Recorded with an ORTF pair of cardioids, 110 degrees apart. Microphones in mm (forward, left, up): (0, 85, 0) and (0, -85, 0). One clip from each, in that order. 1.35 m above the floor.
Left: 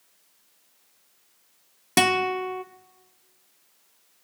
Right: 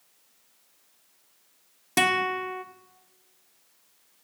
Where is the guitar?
20° left, 0.5 m.